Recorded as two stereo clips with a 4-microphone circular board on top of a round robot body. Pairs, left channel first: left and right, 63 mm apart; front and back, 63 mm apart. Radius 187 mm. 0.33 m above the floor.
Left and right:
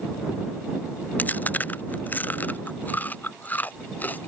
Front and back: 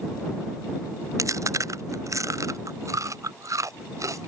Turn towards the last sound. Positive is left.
turn(degrees=150)